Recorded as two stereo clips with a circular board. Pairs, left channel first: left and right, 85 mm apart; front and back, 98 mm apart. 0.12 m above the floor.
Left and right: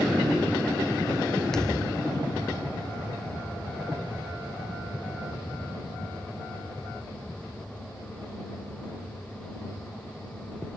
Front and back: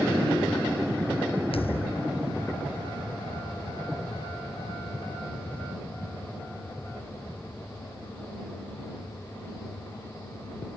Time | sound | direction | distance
1.5 | a thud | 5° left | ?